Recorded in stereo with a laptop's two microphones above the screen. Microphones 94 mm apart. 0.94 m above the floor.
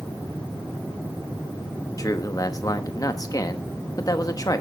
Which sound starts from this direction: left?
A man speaking, at 2.0 s.